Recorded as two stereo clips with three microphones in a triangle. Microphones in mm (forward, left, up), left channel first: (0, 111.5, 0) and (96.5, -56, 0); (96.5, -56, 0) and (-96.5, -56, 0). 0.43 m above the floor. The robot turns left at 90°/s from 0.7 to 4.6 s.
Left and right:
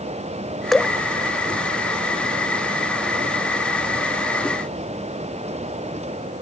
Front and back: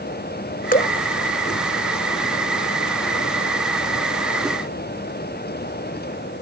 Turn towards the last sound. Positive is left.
turn(degrees=45)